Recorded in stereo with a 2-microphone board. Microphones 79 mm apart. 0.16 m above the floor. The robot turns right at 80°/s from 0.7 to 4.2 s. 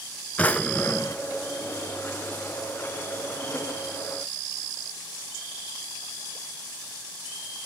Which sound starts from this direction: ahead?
A drawer, at 0.4 s.